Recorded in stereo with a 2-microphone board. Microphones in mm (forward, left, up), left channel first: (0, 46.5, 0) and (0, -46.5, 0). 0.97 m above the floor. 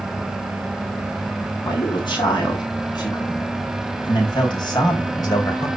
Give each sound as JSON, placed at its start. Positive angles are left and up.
{"t": 1.6, "sound": "a man speaking", "side_deg": 55, "distance_m": 7.5}